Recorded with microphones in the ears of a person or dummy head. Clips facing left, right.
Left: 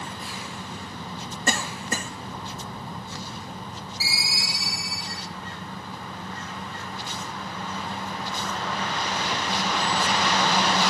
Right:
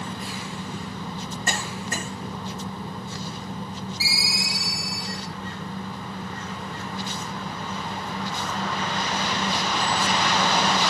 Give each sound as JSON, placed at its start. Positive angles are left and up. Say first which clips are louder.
{"t": 1.5, "sound": "a cough", "louder": "left 4 dB", "side_deg": 75, "distance_m": 2.0}
{"t": 4.0, "sound": "a ringtone", "louder": "right 3 dB", "side_deg": -5, "distance_m": 4.5}